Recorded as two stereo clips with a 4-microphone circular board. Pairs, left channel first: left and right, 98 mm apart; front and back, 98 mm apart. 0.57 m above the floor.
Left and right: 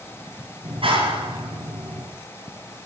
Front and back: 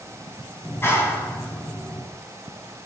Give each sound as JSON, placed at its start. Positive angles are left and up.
{"t": 0.6, "sound": "a clap", "azimuth_deg": -65, "distance_m": 3.5}